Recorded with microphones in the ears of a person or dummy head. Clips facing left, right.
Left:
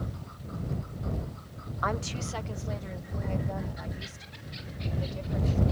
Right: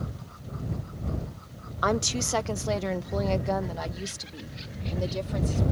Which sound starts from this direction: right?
A woman speaking, at 1.8 s.